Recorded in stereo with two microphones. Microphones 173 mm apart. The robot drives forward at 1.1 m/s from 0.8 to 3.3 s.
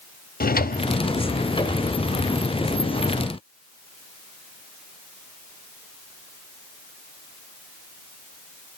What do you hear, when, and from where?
0.4 s a drawer: 55° left (ahead or behind), 0.7 m; by 1.9 s 20° left (ahead or behind), 1.6 m